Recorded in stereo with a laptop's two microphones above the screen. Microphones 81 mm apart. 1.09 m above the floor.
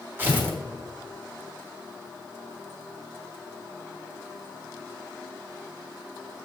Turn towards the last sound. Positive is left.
turn(degrees=-25)  # may be behind; listen again after turning